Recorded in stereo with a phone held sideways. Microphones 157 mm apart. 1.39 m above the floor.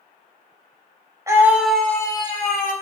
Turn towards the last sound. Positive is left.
turn(degrees=55)  # may be behind; listen again after turning